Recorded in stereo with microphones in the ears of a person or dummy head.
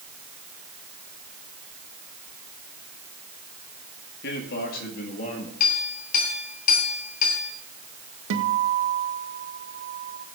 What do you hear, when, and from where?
4.2 s a man speaking: 65° left (ahead or behind), 2 m; by 5.5 s 40° left (ahead or behind), 1.7 m
5.6 s a clink: 55° left (ahead or behind), 3 m
8.3 s a guitar: 65° right (ahead or behind), 1.4 m